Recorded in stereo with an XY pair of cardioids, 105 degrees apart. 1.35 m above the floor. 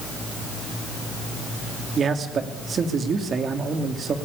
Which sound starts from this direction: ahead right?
A man speaking, at 2.0 s.